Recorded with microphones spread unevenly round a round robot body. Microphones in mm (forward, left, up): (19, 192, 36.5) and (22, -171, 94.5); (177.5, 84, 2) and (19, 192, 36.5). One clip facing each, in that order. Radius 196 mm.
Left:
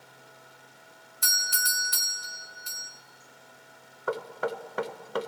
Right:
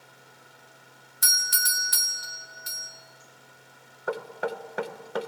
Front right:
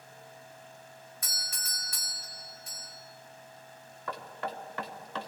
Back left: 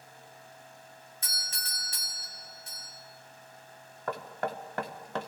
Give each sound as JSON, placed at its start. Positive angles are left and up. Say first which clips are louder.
{"t": 1.2, "sound": "a doorbell", "louder": "even, even", "azimuth_deg": -145, "distance_m": 1.5}
{"t": 4.1, "sound": "knocking", "louder": "even, back left 4 dB", "azimuth_deg": 160, "distance_m": 0.6}